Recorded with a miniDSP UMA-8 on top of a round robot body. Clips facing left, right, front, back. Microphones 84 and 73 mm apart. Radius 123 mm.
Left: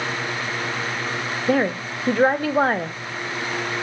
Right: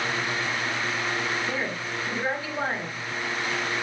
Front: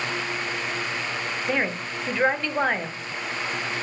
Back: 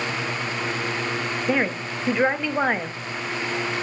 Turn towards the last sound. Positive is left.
turn(degrees=100)